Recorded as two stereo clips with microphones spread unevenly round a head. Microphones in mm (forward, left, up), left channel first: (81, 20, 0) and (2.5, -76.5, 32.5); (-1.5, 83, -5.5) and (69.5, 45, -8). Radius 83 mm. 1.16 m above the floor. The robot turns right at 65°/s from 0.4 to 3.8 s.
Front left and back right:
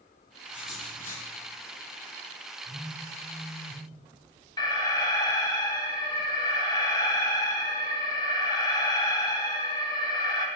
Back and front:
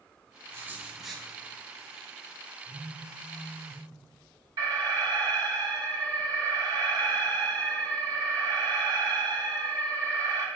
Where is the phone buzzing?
85° right, 2 m; by 3.9 s 10° right, 2 m.